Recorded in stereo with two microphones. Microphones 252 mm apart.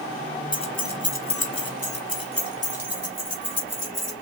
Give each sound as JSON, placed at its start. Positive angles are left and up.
{"t": 0.5, "sound": "keys jangling", "side_deg": 15, "distance_m": 0.8}